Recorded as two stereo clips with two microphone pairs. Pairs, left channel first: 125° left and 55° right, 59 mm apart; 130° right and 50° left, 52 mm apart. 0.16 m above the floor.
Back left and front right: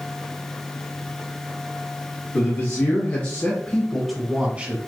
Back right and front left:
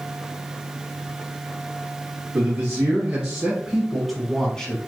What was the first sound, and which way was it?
A man speaking, 110° left.